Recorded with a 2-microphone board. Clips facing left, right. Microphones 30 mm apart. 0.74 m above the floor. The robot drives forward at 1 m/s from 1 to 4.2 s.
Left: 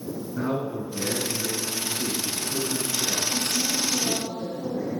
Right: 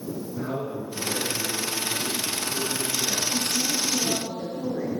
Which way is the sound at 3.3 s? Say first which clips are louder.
Even; 50° right (ahead or behind).